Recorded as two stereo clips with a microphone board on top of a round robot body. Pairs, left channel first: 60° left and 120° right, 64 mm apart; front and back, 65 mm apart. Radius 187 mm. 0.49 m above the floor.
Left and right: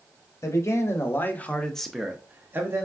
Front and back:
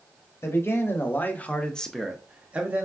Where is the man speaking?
40° left, 1.1 m; by 2.9 s 130° right, 0.8 m.